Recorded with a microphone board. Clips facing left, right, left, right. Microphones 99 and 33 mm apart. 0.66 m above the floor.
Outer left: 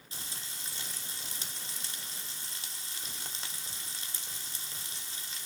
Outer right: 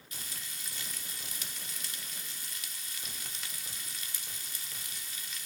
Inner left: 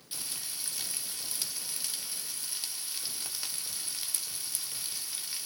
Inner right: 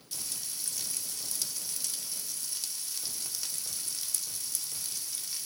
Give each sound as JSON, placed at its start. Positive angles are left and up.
{"t": 0.1, "sound": "frying", "side_deg": 30, "distance_m": 1.9}